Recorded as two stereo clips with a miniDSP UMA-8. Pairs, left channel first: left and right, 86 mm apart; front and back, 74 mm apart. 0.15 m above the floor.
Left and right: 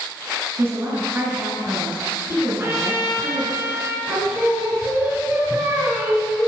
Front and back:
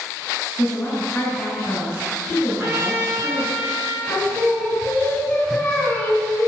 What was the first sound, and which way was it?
A woman speaking, 55° right.